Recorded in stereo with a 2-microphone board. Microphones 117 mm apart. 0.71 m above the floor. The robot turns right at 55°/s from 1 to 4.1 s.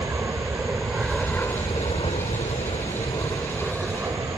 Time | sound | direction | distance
0.0 | an aircraft | 20° right (ahead or behind) | ?